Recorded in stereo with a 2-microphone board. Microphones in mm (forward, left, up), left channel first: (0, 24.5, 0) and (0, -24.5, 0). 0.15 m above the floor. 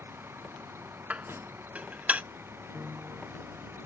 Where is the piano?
30° right (ahead or behind).